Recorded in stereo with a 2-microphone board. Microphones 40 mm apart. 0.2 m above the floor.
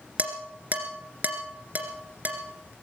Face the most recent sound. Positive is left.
turn(degrees=-40)  # may be behind; listen again after turning